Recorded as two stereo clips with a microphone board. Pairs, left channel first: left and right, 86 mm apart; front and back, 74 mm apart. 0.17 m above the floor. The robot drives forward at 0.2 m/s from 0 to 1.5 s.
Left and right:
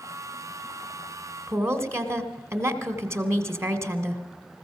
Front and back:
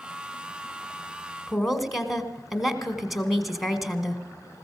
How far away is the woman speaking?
About 1.6 m.